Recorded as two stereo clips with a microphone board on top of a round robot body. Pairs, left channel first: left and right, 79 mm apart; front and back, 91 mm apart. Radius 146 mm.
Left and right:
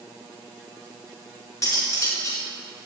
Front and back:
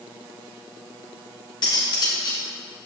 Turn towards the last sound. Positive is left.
turn(degrees=40)